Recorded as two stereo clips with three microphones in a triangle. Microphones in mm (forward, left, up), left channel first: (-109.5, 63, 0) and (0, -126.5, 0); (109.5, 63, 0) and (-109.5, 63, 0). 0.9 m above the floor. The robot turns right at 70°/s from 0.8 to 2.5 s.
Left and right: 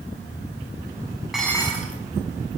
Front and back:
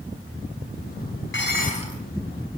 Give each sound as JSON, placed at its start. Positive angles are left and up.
{"t": 1.3, "sound": "dishes clattering", "azimuth_deg": 25, "distance_m": 5.5}